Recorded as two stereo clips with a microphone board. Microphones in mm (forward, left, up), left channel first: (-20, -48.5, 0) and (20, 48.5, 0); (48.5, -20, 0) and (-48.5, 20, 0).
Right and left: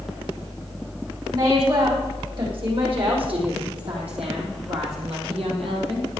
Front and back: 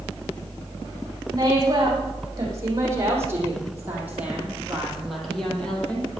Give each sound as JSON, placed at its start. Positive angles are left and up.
{"t": 1.3, "sound": "a woman speaking", "azimuth_deg": 105, "distance_m": 7.0}